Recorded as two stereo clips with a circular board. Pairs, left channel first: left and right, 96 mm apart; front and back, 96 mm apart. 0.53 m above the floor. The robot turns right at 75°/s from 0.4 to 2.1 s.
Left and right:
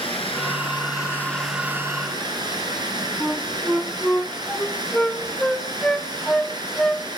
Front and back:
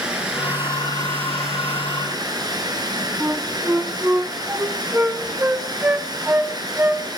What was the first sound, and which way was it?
Running water, 100° left.